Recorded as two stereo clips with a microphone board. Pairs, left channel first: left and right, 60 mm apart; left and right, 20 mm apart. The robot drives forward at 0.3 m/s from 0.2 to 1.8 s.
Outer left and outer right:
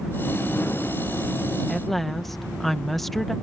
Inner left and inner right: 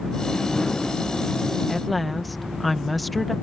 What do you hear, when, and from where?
1.7 s a woman speaking: centre (ahead or behind)